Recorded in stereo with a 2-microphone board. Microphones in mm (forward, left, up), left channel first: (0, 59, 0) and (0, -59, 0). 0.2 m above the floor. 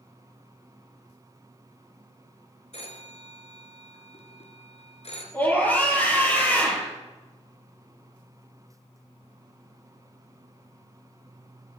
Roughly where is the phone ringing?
Left.